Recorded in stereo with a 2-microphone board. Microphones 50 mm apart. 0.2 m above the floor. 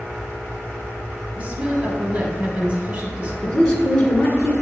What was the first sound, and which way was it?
A woman speaking, 25° right (ahead or behind).